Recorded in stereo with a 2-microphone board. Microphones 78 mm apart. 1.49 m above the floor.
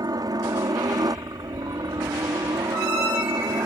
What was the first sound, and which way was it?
A helicopter, 55° right (ahead or behind).